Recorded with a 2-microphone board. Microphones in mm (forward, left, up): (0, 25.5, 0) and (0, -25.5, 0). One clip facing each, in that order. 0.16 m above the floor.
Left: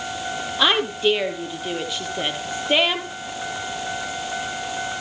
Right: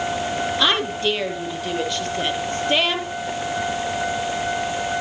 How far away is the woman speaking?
About 3.5 m.